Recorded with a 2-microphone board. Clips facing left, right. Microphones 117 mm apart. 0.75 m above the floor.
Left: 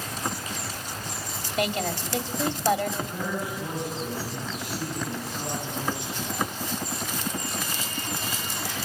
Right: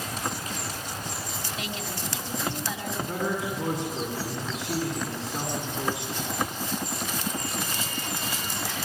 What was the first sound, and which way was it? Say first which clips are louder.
A woman speaking: left 11 dB; 55° left (ahead or behind).